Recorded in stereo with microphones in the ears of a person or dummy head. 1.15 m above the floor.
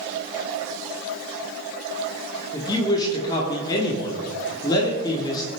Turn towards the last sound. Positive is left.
turn(degrees=20)  # may be behind; listen again after turning